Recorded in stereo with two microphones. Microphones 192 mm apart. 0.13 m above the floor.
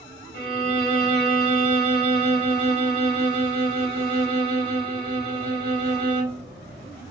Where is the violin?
30° left (ahead or behind), 2 m.